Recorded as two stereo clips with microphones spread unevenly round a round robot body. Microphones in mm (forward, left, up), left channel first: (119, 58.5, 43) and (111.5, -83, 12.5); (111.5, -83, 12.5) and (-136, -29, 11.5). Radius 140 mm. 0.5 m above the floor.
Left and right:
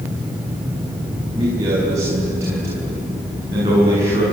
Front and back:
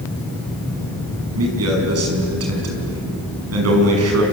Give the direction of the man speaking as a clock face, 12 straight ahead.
6 o'clock.